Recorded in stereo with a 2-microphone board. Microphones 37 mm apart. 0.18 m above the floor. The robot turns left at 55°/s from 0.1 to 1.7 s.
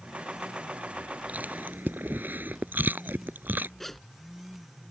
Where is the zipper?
5° left (ahead or behind).